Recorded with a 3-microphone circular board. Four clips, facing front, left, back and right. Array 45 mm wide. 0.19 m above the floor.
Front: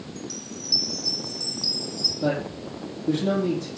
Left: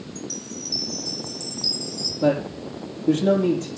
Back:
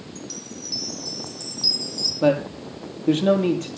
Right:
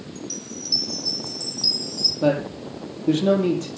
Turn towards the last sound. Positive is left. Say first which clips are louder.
# even, back 6 dB
turn(degrees=-165)